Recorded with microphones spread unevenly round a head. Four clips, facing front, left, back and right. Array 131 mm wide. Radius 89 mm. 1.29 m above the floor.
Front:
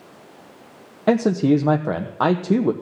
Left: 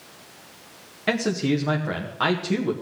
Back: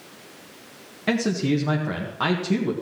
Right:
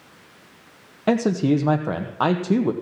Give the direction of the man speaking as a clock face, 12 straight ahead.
1 o'clock.